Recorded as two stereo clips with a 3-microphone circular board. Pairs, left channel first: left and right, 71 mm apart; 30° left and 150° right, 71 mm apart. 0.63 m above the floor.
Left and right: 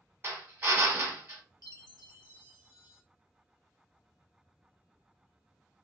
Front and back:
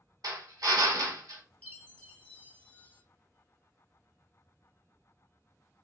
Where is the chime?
100° left, 0.5 m.